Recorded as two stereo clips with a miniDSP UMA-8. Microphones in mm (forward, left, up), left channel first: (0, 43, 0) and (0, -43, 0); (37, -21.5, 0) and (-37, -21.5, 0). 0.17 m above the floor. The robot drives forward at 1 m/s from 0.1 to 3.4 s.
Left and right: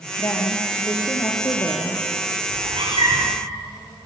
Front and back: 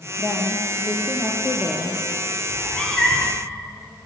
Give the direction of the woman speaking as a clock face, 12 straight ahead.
11 o'clock.